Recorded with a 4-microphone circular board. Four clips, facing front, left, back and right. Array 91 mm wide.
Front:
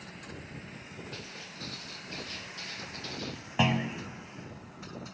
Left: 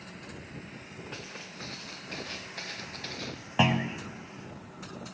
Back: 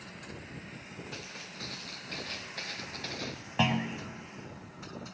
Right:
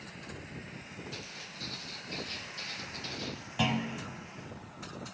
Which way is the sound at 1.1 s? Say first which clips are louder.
Left 3 dB, even; 100° left.